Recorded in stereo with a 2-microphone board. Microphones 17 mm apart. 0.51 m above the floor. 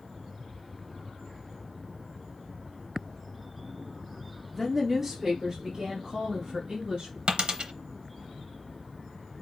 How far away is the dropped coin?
About 0.8 m.